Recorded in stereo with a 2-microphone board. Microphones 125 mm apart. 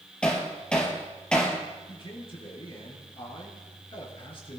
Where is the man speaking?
45° left (ahead or behind), 4.5 m.